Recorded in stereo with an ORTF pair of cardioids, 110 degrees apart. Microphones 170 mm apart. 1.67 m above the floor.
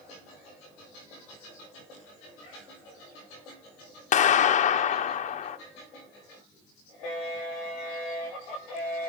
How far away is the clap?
About 0.9 m.